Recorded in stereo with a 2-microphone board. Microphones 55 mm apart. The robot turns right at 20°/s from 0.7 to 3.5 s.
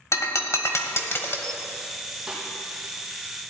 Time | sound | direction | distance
0.1 | breaking glass | 60° left (ahead or behind) | 1.3 m
2.3 | a snare drum | 10° right (ahead or behind) | 4 m